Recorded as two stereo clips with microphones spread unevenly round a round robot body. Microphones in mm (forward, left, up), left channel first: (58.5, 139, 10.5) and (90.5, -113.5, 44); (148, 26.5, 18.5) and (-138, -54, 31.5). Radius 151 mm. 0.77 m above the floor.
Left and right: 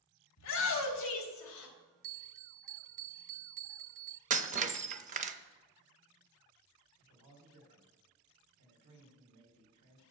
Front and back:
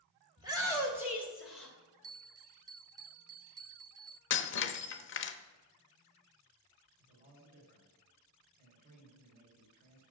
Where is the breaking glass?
30° right, 0.7 m.